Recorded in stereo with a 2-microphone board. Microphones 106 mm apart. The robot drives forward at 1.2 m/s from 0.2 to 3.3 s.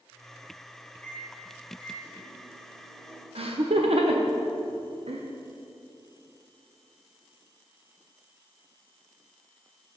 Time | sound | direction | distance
1.0 | a microwave | 15° left (ahead or behind) | 2 m
3.4 | laughter | 65° right (ahead or behind) | 0.8 m